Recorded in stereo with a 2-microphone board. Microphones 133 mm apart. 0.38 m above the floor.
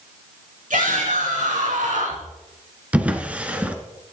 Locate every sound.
0.7 s a shout: 75° right (ahead or behind), 5 m
2.9 s a drawer: 10° right (ahead or behind), 1.4 m